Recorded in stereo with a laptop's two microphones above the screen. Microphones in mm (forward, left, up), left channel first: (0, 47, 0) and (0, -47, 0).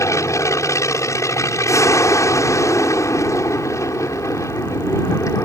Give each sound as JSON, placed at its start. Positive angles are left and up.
{"t": 0.0, "sound": "an aircraft", "side_deg": 35}